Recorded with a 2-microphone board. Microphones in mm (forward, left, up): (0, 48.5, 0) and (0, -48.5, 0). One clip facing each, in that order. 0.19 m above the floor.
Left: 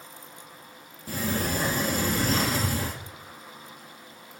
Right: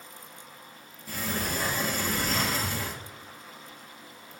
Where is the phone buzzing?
No phone buzzing in this recording.